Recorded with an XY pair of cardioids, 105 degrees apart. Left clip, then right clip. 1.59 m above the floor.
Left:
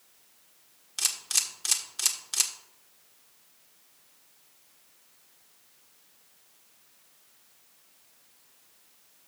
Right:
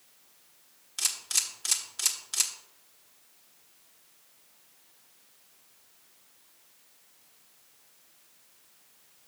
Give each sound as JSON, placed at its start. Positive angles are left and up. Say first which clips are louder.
{"t": 1.0, "sound": "a camera shutter", "louder": "left 1 dB", "azimuth_deg": 20, "distance_m": 1.2}